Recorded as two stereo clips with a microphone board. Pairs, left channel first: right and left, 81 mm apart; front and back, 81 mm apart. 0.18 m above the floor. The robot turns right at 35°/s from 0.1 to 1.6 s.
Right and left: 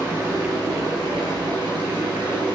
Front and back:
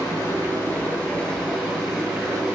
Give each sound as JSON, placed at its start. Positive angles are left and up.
{"t": 0.0, "sound": "running water", "azimuth_deg": 35, "distance_m": 2.5}